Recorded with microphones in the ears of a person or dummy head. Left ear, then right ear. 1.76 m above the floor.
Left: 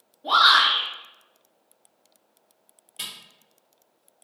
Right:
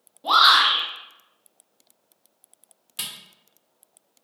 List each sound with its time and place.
0.2 s a shout: 65° right (ahead or behind), 1.3 m
3.0 s a camera shutter: 50° right (ahead or behind), 0.8 m